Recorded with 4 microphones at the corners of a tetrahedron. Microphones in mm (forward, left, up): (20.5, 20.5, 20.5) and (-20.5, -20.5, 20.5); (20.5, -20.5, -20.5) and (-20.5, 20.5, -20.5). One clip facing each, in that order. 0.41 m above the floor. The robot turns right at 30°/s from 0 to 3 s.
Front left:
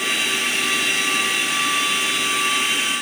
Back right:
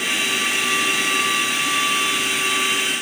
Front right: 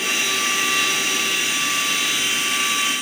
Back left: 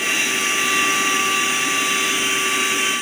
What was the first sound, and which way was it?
Only background noise.